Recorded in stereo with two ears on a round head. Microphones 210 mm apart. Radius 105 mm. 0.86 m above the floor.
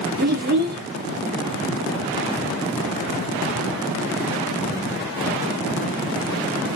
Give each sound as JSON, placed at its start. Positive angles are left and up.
{"t": 0.2, "sound": "a child speaking", "side_deg": -40, "distance_m": 1.2}